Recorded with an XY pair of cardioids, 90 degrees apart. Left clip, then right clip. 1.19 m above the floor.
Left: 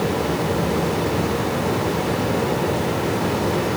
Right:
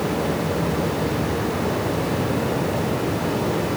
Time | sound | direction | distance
0.0 | a fan | 50° left | 3 m